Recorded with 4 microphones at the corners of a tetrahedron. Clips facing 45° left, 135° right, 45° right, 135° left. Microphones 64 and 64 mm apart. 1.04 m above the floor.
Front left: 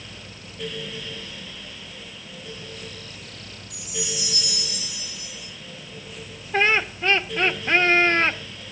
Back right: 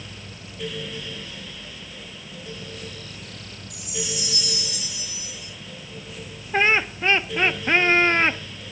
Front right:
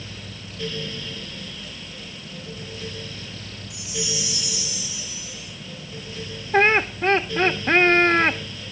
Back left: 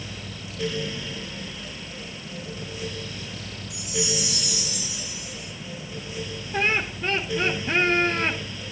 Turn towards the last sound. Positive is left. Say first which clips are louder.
# back right 1 dB, front right 7 dB
turn(degrees=-65)